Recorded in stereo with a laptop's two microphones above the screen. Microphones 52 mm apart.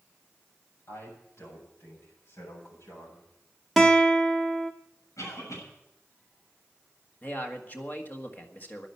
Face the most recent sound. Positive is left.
turn(degrees=35)  # may be behind; listen again after turning